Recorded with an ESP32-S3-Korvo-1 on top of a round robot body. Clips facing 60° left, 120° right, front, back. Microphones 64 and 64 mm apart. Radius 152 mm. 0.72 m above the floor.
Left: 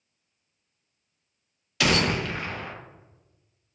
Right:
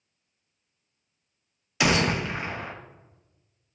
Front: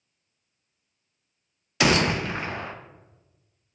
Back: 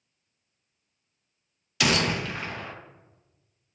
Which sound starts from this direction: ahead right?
A gunshot, at 1.8 s.